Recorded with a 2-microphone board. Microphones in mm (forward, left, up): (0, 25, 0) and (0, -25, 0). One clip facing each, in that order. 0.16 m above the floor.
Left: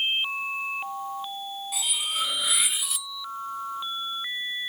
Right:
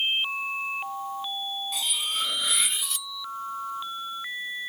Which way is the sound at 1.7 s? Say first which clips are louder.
Left 1 dB; 5° left (ahead or behind).